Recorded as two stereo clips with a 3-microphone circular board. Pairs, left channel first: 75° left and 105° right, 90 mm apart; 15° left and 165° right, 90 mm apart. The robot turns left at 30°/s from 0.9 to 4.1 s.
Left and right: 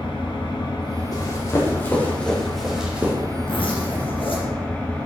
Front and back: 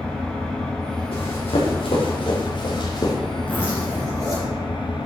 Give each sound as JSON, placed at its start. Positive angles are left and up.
{"t": 0.0, "sound": "an engine running", "azimuth_deg": 95, "distance_m": 2.5}
{"t": 1.1, "sound": "running footsteps", "azimuth_deg": 30, "distance_m": 4.5}
{"t": 3.5, "sound": "a zipper", "azimuth_deg": 90, "distance_m": 4.0}